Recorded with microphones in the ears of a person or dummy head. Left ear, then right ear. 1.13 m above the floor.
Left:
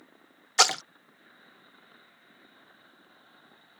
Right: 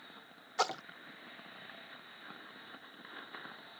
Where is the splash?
60° left (ahead or behind).